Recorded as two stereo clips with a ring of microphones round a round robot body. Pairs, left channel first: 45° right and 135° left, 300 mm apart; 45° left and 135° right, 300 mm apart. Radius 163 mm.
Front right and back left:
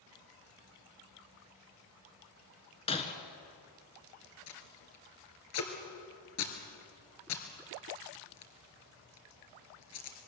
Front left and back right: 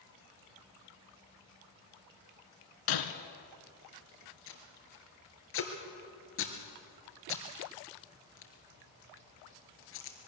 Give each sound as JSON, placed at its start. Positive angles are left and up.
{"t": 2.9, "sound": "breaking glass", "azimuth_deg": 25, "distance_m": 1.7}
{"t": 4.5, "sound": "tape being pulled", "azimuth_deg": -5, "distance_m": 2.5}